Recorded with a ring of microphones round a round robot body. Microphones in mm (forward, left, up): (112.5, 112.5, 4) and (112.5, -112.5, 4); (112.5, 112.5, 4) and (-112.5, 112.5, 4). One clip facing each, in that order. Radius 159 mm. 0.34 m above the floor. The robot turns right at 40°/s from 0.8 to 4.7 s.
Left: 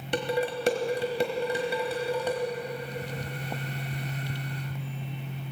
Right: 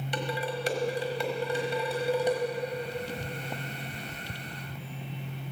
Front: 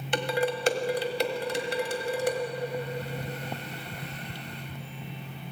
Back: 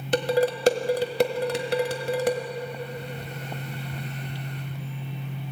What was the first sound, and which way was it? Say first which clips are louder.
Dishes clattering: left 6 dB, back 6 dB; 135° left.